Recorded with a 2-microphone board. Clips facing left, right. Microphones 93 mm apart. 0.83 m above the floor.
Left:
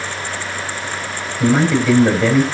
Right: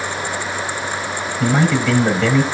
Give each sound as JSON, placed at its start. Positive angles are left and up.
{"t": 1.4, "sound": "a man speaking", "side_deg": 15, "distance_m": 5.5}